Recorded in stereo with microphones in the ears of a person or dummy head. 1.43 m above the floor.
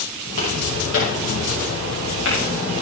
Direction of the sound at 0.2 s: 65° left (ahead or behind).